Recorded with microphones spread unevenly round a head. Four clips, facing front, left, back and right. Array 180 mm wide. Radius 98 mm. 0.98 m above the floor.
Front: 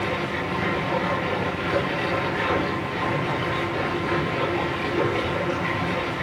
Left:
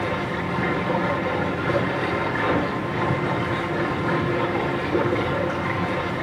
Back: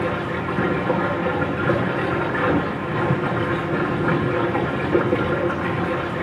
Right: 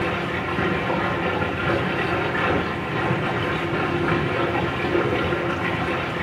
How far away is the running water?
About 7 m.